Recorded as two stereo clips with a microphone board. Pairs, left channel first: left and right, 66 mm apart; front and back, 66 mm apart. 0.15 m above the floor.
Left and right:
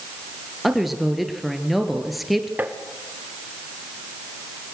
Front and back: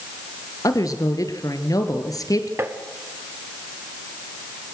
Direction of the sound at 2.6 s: 145° right.